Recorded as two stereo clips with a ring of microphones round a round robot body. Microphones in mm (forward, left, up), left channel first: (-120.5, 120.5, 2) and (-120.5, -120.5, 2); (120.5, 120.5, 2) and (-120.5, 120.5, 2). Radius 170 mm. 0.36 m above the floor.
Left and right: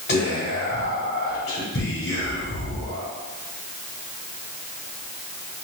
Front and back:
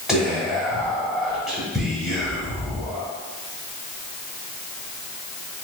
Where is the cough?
No cough in this recording.